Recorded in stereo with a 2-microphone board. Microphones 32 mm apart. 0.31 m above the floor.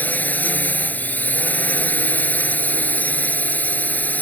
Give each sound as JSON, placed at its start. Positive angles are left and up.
{"t": 0.0, "sound": "a drone", "side_deg": 65}